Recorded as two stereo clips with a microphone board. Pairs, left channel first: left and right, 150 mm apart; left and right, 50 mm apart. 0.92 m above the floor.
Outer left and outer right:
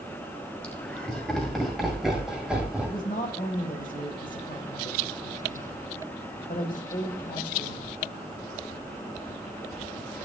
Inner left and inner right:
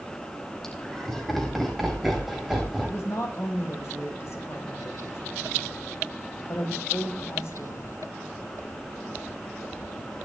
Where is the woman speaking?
55° left (ahead or behind), 4.5 m.